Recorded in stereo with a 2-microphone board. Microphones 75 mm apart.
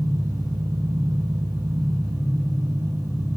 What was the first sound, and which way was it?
An engine running, 60° right (ahead or behind).